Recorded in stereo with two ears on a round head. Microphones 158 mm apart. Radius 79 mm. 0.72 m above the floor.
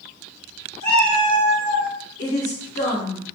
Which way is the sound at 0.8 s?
40° left (ahead or behind).